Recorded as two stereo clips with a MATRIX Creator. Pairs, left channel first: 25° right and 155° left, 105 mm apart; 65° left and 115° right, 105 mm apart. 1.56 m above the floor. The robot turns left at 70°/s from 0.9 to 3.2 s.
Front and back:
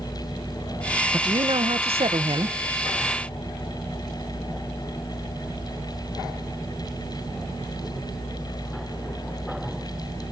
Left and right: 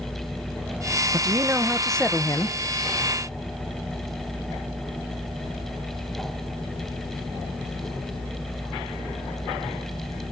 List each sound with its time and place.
1.1 s a man speaking: 150° right, 0.7 m; by 2.6 s 110° left, 0.7 m